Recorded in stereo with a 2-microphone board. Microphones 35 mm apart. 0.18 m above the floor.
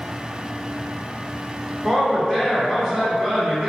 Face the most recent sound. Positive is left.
turn(degrees=0)  # may be behind; listen again after turning